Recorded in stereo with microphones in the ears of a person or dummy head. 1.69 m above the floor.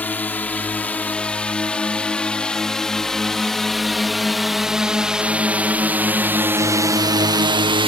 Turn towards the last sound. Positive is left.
turn(degrees=-30)  # may be behind; listen again after turning